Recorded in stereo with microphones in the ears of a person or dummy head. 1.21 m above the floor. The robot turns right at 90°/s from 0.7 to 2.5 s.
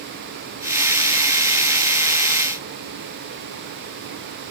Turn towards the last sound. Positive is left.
No sound to turn to.